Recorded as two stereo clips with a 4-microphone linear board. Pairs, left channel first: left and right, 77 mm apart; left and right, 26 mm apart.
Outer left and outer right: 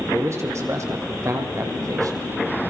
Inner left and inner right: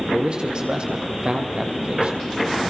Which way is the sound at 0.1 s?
40° right (ahead or behind).